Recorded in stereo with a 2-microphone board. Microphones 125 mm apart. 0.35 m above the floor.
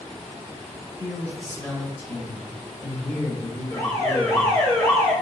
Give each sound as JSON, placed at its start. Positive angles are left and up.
{"t": 1.0, "sound": "a man speaking", "side_deg": 15, "distance_m": 1.3}
{"t": 3.7, "sound": "an alarm", "side_deg": 30, "distance_m": 1.1}